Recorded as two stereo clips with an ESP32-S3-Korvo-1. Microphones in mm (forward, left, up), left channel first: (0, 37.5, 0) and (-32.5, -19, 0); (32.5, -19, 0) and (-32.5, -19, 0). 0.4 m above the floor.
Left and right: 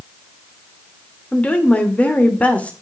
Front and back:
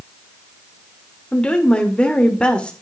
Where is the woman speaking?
45° left, 1.3 m.